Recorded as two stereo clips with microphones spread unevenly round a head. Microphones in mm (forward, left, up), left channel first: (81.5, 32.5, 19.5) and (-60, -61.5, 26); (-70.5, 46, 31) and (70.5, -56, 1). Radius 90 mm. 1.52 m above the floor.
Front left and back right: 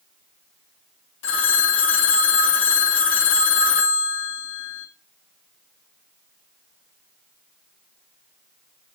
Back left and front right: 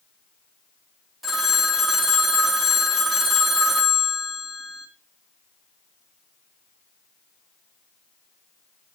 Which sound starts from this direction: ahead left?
A phone ringing, at 1.2 s.